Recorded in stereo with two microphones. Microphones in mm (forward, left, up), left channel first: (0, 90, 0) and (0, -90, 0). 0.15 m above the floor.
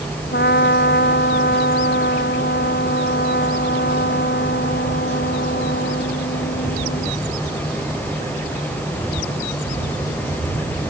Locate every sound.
0.3 s a trumpet: 70° left (ahead or behind)